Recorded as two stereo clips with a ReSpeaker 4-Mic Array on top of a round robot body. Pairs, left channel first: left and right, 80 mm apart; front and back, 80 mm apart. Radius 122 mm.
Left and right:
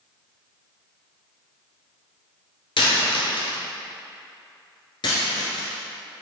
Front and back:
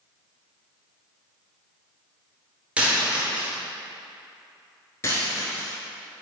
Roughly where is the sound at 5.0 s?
Ahead left.